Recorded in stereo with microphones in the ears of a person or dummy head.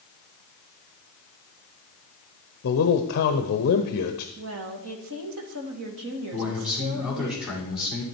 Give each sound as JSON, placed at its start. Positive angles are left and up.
{"t": 2.6, "sound": "a man speaking", "side_deg": 50, "distance_m": 0.7}
{"t": 4.4, "sound": "a woman speaking", "side_deg": -70, "distance_m": 1.6}
{"t": 6.3, "sound": "a man speaking", "side_deg": 0, "distance_m": 4.5}